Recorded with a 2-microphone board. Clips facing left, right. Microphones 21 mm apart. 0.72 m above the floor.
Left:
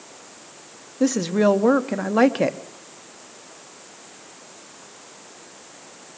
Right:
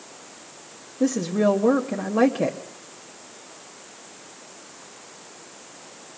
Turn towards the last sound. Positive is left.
turn(degrees=45)  # may be behind; listen again after turning